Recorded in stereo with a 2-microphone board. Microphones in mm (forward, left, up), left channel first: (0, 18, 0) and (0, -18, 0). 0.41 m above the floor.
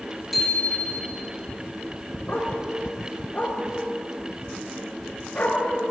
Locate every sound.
0.3 s a bicycle bell: centre (ahead or behind), 5 m
2.3 s a dog barking: 45° left (ahead or behind), 5.5 m